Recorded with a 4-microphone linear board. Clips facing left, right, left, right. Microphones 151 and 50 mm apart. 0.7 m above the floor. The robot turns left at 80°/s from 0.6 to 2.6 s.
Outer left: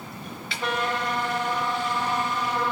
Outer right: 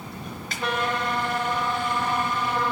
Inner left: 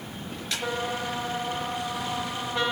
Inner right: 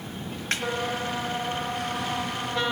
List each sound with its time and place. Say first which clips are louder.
0.5 s a snare drum: even, inner right 3 dB; 45° right (ahead or behind), 4 m; by 0.7 s 40° right (ahead or behind), 4 m